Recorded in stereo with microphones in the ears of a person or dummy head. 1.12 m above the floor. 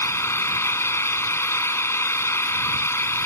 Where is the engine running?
15° left (ahead or behind).